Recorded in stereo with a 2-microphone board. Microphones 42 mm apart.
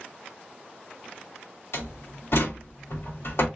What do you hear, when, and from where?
1.7 s a door slam: 75° left (ahead or behind), 2.5 m